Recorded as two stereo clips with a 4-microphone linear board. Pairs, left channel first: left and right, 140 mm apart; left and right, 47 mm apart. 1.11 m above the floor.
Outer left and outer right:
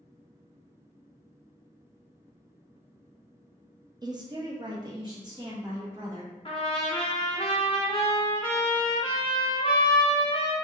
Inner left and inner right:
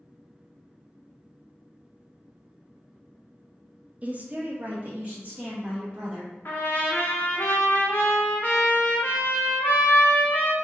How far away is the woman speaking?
About 0.6 m.